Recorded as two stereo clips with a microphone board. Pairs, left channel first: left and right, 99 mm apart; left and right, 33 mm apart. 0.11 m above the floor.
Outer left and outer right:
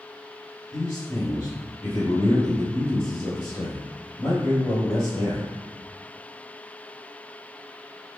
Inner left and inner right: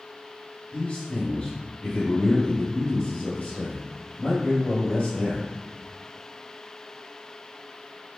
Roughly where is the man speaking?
Left.